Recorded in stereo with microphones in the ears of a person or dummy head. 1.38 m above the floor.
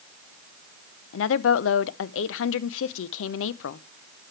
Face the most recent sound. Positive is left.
turn(degrees=85)